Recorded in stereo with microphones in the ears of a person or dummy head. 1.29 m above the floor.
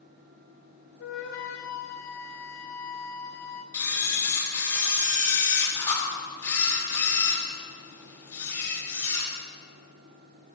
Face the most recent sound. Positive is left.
turn(degrees=25)  # may be behind; listen again after turning